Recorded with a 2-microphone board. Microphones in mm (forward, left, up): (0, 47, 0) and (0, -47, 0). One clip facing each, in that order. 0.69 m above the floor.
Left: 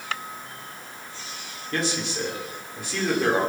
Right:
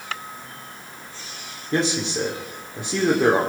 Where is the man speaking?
25° right (ahead or behind), 2 m.